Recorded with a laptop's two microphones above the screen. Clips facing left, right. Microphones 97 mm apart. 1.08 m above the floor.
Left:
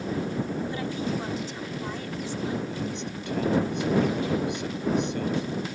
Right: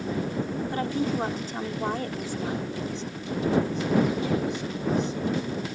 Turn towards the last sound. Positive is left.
turn(degrees=75)  # may be behind; listen again after turning